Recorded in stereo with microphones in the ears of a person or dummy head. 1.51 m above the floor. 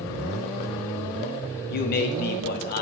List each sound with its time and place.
1.7 s a man speaking: 50° left (ahead or behind), 0.5 m